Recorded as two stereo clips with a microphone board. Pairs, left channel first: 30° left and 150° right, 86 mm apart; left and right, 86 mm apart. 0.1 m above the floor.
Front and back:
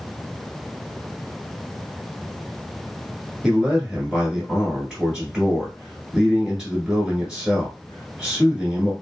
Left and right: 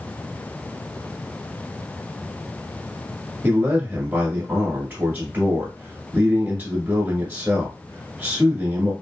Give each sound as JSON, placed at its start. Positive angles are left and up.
{"t": 3.4, "sound": "a man speaking", "azimuth_deg": -80, "distance_m": 1.2}